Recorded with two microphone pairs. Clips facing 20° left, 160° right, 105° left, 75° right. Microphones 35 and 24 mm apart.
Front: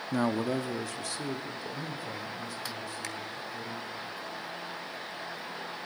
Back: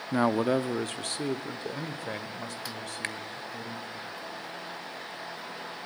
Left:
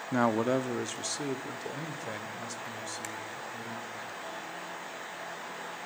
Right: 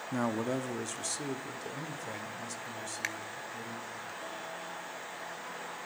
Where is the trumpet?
I don't hear a trumpet.